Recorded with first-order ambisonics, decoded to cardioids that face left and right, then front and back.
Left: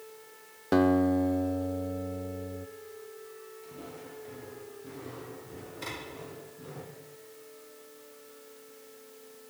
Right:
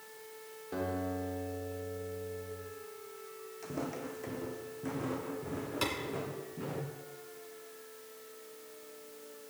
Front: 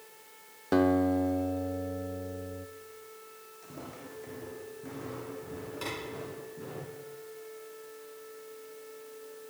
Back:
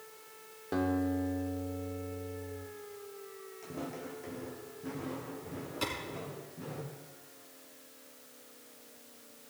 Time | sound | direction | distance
0.7 | a guitar | 65° left | 0.6 m
3.6 | footsteps | 100° right | 2.5 m
5.8 | a clap | 105° right | 6 m